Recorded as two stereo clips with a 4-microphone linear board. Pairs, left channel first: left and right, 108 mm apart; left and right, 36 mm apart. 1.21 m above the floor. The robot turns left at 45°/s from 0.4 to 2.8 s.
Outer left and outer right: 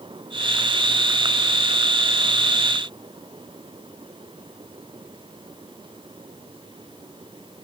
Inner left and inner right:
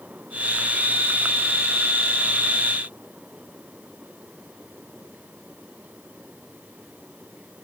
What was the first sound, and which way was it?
Only background noise.